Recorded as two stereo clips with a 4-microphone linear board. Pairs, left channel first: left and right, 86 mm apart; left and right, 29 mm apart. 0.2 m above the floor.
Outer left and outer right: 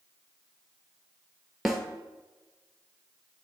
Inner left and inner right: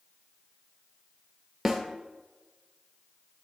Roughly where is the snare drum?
Centre.